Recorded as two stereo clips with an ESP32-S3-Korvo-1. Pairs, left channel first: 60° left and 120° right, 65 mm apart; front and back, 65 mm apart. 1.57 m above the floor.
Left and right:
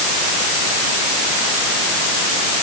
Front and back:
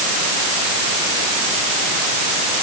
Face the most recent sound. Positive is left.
No sound to turn to.